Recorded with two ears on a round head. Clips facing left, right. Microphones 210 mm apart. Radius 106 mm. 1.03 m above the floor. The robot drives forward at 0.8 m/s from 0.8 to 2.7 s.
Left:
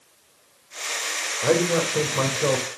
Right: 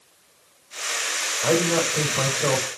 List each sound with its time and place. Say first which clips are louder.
1.4 s a man speaking: left 1 dB; 40° left (ahead or behind), 3 m; by 2.7 s 30° left (ahead or behind), 4 m